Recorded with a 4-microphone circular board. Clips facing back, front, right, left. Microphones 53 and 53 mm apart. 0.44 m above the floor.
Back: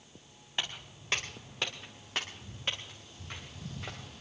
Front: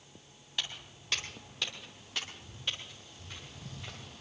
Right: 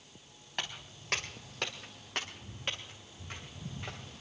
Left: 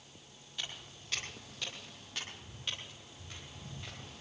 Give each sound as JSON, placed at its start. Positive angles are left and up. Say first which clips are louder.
{"t": 0.6, "sound": "footsteps", "louder": "back 2 dB, right 4 dB", "azimuth_deg": -120, "distance_m": 3.5}